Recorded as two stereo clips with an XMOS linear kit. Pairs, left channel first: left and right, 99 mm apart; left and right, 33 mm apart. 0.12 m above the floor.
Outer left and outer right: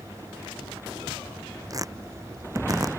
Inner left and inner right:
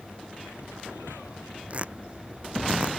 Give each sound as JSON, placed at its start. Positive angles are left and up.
{"t": 1.7, "sound": "tearing paper", "side_deg": -35}